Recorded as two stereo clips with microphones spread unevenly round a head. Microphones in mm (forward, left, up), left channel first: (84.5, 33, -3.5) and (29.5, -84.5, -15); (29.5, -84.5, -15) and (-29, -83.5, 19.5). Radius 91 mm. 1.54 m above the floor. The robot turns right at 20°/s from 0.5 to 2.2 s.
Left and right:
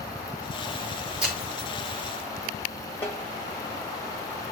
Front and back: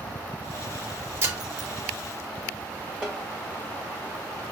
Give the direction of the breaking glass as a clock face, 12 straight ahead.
7 o'clock.